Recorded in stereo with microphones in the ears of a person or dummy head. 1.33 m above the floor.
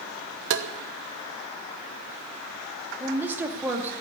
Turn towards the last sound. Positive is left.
turn(degrees=-10)  # may be behind; listen again after turning